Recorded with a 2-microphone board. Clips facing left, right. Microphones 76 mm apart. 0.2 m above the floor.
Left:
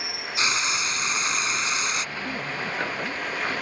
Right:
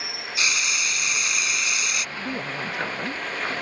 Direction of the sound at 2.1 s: 20° right (ahead or behind).